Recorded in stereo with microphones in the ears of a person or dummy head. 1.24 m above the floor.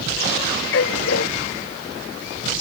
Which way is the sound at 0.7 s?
75° left (ahead or behind).